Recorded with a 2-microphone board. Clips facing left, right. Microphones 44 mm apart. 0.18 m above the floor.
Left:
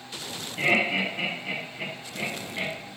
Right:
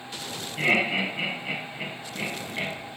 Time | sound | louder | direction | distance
0.6 | laughter | even | 5° right (ahead or behind) | 1.1 m